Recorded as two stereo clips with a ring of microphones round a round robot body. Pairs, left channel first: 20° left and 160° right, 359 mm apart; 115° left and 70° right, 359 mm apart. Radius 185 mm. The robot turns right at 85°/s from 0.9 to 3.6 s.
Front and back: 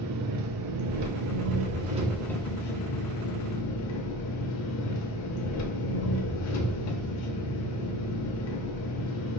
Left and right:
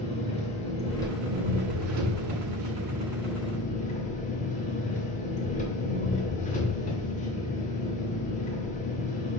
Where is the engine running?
Straight behind, 0.8 m; by 9.4 s 50° left, 0.8 m.